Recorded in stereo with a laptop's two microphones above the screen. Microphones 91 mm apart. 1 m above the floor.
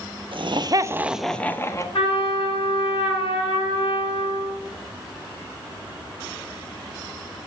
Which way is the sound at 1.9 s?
75° left (ahead or behind).